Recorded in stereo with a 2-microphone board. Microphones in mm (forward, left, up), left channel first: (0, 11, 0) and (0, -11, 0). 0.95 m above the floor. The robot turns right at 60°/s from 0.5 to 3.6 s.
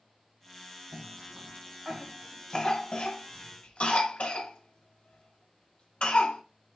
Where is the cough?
55° right (ahead or behind), 1.2 m; by 6.4 s 55° left (ahead or behind), 1.2 m.